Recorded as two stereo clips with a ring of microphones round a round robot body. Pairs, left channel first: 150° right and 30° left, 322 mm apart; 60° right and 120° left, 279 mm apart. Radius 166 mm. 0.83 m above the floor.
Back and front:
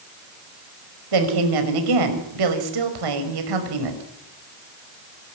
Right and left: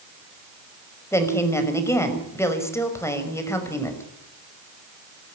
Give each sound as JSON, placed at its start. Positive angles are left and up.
{"t": 1.1, "sound": "a woman speaking", "azimuth_deg": 20, "distance_m": 5.5}